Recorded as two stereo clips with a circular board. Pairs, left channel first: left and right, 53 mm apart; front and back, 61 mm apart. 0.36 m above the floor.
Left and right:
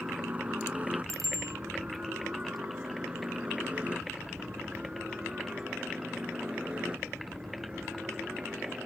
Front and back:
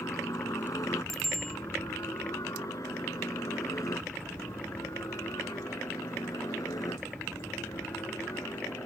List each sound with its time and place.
0.0 s a helicopter: 30° right; by 8.9 s 20° right
1.1 s a bicycle bell: 85° right